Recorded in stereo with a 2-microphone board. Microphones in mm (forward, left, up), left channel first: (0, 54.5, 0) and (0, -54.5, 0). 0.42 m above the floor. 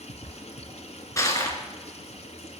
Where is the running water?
70° left (ahead or behind), 2.5 m.